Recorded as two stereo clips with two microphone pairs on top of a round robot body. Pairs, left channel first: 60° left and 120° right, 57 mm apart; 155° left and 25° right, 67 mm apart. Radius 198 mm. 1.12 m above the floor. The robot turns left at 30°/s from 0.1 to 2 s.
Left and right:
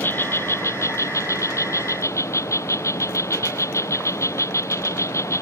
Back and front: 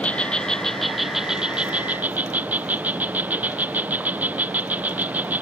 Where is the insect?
100° left; by 5.4 s 45° left.